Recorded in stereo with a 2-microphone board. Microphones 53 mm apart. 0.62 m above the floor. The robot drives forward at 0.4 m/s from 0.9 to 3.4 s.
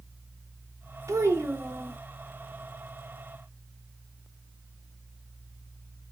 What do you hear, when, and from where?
1.1 s a child speaking: 75° right (ahead or behind), 0.8 m; by 2.0 s 55° right (ahead or behind), 0.9 m